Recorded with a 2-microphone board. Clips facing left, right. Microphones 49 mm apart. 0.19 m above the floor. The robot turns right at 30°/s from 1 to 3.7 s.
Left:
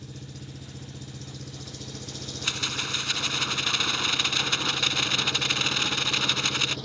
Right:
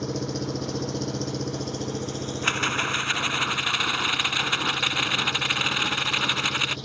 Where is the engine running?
80° right; by 6.9 s 5° left.